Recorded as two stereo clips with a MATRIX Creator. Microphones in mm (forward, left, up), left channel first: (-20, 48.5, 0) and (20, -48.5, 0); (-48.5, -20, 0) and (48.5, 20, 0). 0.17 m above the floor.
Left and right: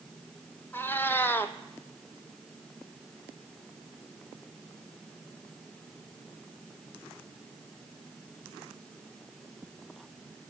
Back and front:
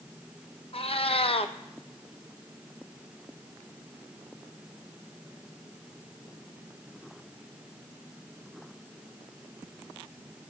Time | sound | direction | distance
0.7 | a cat meowing | straight behind | 0.5 m